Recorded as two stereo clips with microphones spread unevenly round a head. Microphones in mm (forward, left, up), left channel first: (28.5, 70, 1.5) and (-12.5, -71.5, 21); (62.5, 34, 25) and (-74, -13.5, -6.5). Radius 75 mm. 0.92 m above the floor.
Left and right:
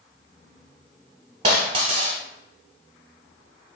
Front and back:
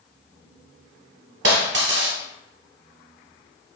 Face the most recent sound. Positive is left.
turn(degrees=-155)